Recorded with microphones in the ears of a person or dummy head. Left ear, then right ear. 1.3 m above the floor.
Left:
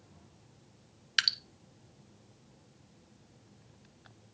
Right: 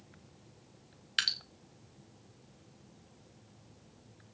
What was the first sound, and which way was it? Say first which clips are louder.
Dripping: left 3 dB; 20° left (ahead or behind).